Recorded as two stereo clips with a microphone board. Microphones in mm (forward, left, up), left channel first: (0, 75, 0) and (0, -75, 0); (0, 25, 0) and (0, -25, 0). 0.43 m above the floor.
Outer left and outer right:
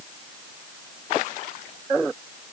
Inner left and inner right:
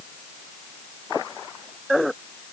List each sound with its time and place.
Only background noise.